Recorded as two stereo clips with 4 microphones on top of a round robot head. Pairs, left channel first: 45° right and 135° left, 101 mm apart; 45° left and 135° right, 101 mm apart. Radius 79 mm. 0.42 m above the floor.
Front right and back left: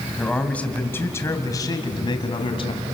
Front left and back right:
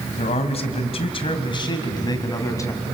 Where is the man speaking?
40° left, 3 m; by 2.8 s 15° right, 3.5 m.